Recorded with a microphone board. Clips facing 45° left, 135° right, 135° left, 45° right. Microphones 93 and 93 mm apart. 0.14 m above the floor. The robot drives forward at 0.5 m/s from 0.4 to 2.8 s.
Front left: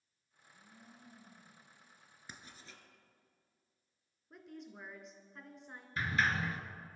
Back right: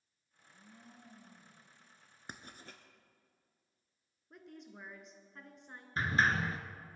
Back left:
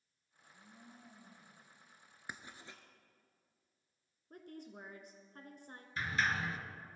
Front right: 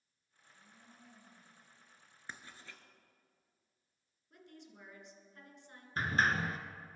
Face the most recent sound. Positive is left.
turn(degrees=-85)